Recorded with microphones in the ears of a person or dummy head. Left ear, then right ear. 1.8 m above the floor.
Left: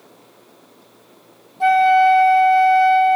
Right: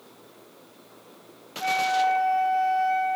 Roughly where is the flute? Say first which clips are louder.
Left 11 dB; left.